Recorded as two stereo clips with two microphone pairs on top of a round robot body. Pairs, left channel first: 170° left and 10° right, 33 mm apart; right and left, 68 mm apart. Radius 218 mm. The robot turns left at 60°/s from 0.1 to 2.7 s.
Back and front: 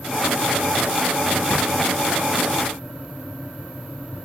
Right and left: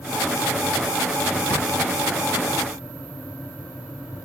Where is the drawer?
155° right, 1.6 m; by 1.7 s 170° right, 1.6 m.